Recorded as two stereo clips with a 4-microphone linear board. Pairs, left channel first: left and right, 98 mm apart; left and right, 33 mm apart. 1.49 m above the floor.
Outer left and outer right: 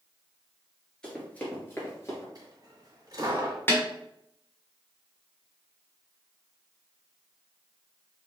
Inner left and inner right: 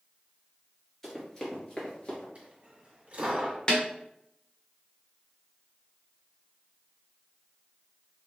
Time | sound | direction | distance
1.0 | running footsteps | 10° left (ahead or behind) | 1.8 m
2.4 | a dropped coin | 40° right (ahead or behind) | 1.6 m
3.7 | a snare drum | 25° left (ahead or behind) | 1.2 m